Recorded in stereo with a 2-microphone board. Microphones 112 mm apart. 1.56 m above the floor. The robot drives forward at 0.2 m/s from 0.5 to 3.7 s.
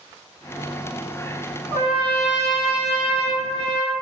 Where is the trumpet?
65° right (ahead or behind), 1.5 m; by 3.9 s 55° right (ahead or behind), 1.7 m.